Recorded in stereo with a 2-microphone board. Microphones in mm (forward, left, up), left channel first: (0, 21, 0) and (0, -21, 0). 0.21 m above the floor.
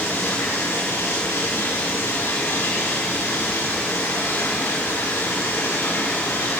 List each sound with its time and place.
0.0 s running water: 70° left (ahead or behind), 9.5 m